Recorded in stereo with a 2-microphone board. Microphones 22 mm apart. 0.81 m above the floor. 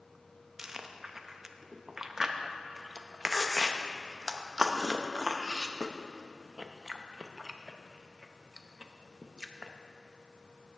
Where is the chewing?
20° right (ahead or behind), 0.6 m.